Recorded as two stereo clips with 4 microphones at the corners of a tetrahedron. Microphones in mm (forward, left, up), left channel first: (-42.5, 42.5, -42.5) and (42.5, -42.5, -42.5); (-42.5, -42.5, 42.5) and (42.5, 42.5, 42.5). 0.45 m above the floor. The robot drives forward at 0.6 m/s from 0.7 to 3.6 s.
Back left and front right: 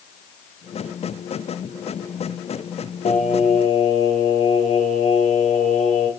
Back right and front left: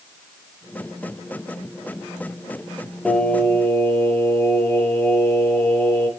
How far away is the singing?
About 0.6 m.